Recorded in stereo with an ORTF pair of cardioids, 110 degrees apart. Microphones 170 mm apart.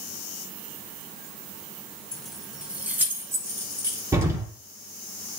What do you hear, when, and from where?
2.1 s keys jangling: 5° left, 1.8 m; by 4.0 s 25° right, 3 m
4.1 s an explosion: 15° right, 5 m